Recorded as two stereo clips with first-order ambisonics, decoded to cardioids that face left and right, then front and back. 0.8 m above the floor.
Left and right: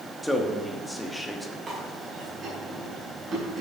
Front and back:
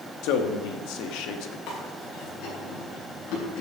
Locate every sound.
0.2 s a man speaking: 5° left, 1.3 m
1.7 s chewing: 30° right, 5.5 m